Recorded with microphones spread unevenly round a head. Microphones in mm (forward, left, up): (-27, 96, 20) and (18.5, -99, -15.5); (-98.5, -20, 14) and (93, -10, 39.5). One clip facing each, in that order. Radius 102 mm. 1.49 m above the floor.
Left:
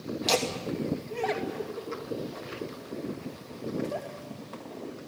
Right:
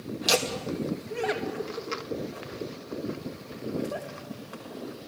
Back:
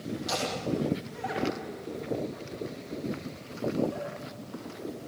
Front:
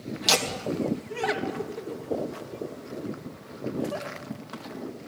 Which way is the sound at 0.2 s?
Straight ahead.